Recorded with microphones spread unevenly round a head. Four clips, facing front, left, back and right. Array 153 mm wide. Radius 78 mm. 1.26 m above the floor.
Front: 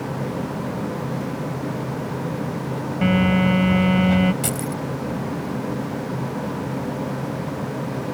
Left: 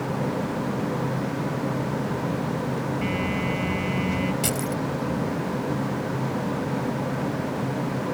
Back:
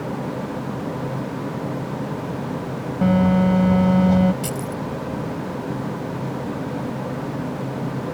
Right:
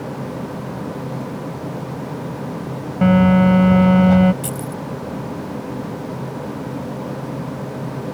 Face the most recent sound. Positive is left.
turn(degrees=35)